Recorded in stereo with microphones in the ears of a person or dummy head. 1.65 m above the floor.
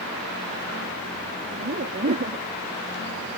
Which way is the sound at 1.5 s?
45° right (ahead or behind).